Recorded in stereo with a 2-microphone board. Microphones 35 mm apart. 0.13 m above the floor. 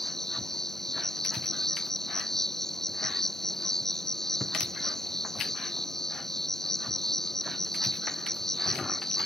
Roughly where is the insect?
Centre.